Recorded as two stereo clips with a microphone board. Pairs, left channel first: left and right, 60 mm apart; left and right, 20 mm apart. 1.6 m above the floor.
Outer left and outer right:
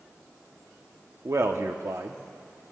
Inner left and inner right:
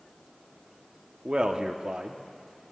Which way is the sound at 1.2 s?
55° right (ahead or behind).